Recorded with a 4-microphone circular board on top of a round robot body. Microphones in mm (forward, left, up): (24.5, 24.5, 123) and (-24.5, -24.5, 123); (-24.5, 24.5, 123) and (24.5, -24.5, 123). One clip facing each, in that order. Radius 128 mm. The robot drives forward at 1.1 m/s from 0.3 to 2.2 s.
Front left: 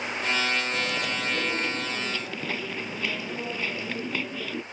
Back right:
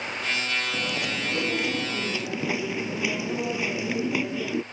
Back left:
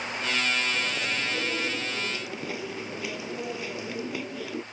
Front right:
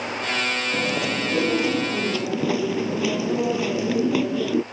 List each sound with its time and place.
0.7 s chewing: 50° right; by 4.6 s 55° right